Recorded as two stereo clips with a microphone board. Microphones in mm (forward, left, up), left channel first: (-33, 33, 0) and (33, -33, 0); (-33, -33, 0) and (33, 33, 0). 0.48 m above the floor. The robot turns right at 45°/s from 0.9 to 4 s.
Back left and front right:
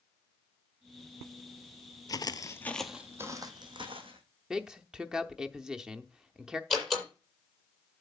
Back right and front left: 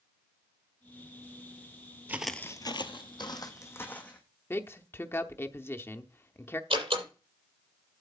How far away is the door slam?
About 8 m.